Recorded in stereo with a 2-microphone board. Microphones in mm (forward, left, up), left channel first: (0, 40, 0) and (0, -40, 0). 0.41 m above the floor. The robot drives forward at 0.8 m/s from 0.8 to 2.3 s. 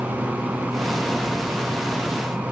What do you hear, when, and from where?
Only background noise.